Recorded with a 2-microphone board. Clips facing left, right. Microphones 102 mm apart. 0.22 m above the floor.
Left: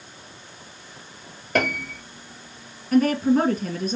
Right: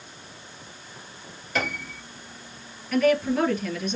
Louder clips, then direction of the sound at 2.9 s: Left 3 dB; 40° left (ahead or behind).